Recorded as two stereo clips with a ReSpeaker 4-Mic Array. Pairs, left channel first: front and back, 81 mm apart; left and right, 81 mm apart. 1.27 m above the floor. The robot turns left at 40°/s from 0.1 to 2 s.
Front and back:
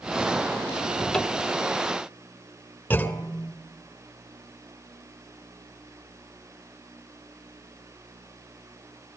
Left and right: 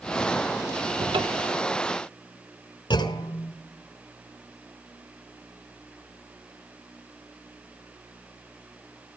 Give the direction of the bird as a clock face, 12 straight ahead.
No bird in this recording.